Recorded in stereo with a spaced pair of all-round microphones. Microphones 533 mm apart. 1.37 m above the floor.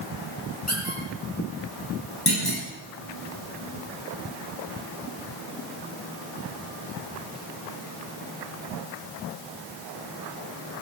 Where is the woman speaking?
No woman speaking in this recording.